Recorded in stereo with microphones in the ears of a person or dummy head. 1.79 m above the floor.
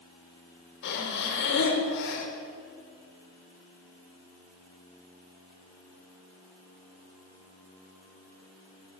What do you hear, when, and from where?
0.8 s breathing: 60° left (ahead or behind), 6.5 m